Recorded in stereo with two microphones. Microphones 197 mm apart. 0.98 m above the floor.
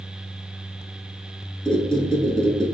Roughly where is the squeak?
Centre.